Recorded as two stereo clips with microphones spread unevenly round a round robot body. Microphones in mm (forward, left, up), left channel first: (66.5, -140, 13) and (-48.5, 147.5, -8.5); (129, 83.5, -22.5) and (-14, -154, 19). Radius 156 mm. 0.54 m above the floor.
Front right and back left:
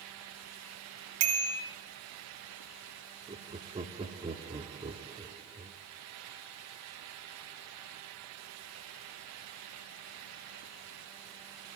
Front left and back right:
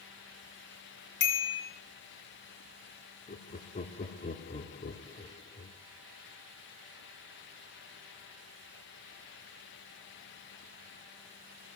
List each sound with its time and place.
1.2 s a bicycle bell: 120° left, 3 m
3.3 s laughter: 65° left, 0.8 m